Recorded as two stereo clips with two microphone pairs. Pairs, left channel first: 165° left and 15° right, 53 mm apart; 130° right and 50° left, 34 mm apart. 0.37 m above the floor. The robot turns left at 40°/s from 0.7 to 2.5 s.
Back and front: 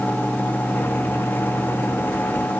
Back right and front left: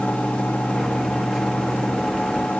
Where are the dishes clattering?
No dishes clattering in this recording.